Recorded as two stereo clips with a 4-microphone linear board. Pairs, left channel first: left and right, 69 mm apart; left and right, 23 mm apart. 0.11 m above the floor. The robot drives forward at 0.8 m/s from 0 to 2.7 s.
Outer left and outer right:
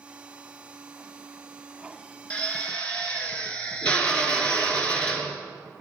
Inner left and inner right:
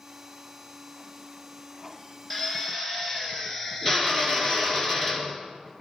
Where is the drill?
20° left (ahead or behind), 1.5 m; by 5.4 s 15° left (ahead or behind), 1.7 m.